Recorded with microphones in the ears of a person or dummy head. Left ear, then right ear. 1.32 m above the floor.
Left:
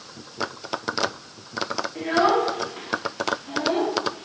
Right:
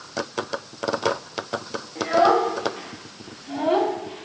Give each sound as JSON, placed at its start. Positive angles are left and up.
{"t": 1.9, "sound": "a child speaking", "side_deg": 25, "distance_m": 1.5}